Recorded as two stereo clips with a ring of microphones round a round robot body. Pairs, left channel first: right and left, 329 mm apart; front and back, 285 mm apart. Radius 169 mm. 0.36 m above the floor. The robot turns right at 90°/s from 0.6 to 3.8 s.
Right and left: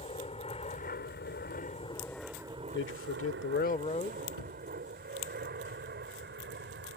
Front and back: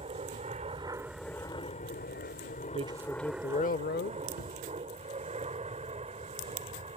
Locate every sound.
0.0 s an aircraft: 140° right; by 7.0 s 125° left
2.7 s a man speaking: 125° right; by 4.2 s 30° right
4.3 s a cupboard door: 55° right